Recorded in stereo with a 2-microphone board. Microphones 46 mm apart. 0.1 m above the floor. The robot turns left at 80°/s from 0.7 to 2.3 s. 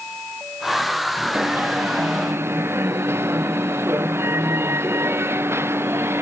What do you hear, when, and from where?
1.3 s an alarm: 35° right; by 6.2 s 110° right